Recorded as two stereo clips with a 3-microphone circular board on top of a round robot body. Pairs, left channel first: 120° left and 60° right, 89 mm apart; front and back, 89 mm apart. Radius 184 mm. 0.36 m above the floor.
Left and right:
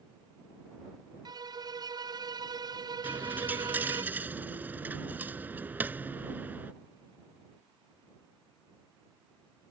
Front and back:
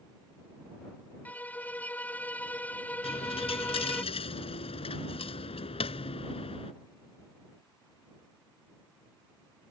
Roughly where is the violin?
Right.